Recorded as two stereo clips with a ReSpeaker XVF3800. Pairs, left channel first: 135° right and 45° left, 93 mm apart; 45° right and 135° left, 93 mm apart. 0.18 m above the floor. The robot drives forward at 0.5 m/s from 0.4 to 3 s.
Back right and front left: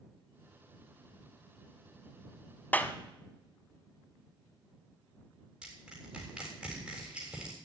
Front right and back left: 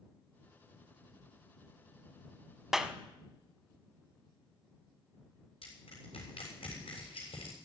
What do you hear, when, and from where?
2.7 s a clap: 145° right, 0.8 m; by 3.0 s 155° right, 0.8 m
5.6 s crushing: 35° right, 7 m